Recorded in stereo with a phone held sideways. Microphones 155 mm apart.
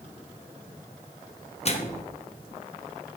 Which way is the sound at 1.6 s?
45° left (ahead or behind).